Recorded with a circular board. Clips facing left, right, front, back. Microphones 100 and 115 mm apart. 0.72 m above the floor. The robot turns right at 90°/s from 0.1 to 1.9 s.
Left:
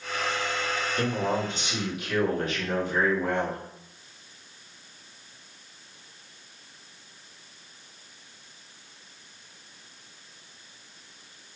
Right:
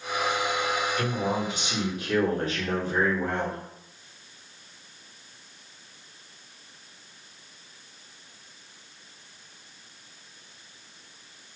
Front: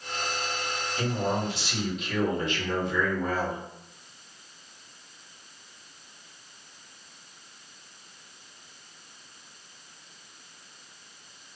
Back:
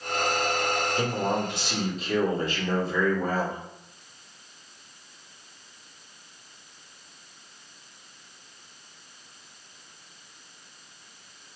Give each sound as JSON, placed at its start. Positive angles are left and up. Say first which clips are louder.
{"t": 1.0, "sound": "a man speaking", "louder": "left 1 dB, front 3 dB", "azimuth_deg": 140, "distance_m": 1.0}